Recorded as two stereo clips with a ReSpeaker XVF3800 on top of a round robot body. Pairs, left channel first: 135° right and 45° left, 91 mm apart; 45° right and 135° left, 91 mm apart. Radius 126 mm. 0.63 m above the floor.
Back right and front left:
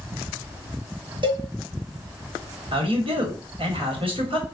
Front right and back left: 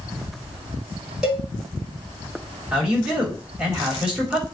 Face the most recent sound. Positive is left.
turn(degrees=55)